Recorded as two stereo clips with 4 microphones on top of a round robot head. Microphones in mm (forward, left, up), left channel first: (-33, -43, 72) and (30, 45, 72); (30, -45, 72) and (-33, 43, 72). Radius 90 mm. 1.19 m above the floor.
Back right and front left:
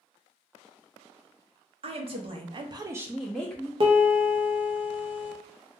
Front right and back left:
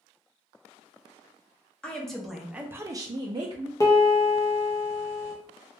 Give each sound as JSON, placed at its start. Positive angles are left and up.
{"t": 1.8, "sound": "a woman speaking", "azimuth_deg": 25, "distance_m": 0.9}
{"t": 3.8, "sound": "a piano", "azimuth_deg": 10, "distance_m": 0.6}